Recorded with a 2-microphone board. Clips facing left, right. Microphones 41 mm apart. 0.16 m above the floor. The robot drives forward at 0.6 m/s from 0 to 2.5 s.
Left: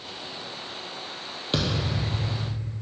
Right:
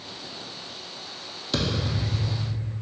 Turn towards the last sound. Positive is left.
turn(degrees=20)  # may be behind; listen again after turning